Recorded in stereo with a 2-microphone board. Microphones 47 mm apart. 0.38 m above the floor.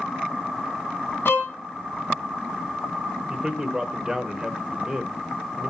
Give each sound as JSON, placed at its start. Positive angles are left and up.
{"t": 1.2, "sound": "a violin", "side_deg": 55, "distance_m": 2.5}
{"t": 3.3, "sound": "a man speaking", "side_deg": -20, "distance_m": 1.1}